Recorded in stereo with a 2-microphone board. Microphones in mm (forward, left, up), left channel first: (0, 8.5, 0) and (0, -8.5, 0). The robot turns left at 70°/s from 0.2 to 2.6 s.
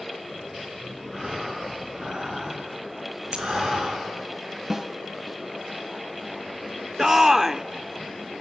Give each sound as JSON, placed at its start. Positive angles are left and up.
{"t": 1.1, "sound": "breathing", "azimuth_deg": -15, "distance_m": 8.5}
{"t": 3.3, "sound": "breaking glass", "side_deg": -65, "distance_m": 5.5}
{"t": 4.7, "sound": "a snare drum", "side_deg": -30, "distance_m": 2.5}
{"t": 7.0, "sound": "a shout", "side_deg": -25, "distance_m": 1.0}